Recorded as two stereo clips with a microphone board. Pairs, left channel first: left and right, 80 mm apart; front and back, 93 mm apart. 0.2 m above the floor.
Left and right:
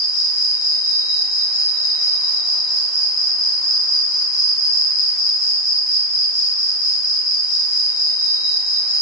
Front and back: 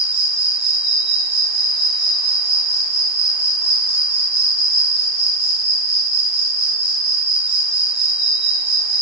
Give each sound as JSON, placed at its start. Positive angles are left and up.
{"t": 0.0, "sound": "an insect", "azimuth_deg": -135, "distance_m": 3.5}